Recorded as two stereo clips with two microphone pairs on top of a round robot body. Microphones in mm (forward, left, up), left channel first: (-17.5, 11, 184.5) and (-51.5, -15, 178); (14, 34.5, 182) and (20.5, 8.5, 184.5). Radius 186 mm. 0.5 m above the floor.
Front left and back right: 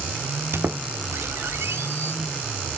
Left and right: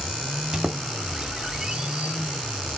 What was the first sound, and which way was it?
A squeak, 145° right.